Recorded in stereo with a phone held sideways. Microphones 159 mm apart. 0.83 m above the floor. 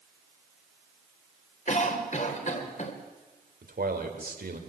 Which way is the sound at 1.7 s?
50° left (ahead or behind).